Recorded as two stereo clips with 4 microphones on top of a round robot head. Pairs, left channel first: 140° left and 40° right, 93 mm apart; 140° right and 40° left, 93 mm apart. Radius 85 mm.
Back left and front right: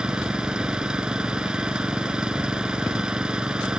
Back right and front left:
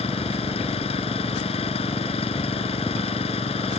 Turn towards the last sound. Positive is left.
turn(degrees=-125)